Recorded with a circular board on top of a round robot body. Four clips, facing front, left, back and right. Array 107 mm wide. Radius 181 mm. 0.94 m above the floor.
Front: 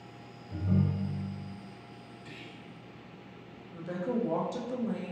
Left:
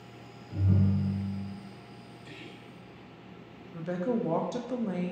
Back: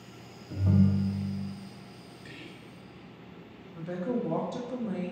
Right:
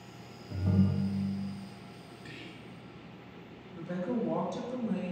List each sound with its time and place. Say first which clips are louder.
0.5 s a ringtone: even, back 5 dB; 145° right, 0.9 m
2.2 s whispering: even, back 2 dB; 140° right, 1.9 m
3.7 s a woman speaking: left 3 dB, back 1 dB; 90° left, 0.9 m